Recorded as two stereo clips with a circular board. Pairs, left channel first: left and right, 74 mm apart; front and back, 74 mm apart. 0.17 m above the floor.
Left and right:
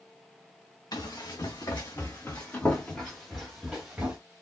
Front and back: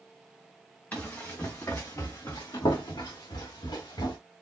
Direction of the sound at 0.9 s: 65° left.